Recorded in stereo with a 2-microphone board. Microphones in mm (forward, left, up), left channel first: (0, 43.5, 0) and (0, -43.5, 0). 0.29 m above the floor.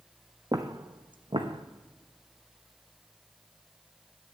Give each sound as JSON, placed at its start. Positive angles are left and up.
{"t": 0.5, "sound": "footsteps", "side_deg": -40, "distance_m": 0.8}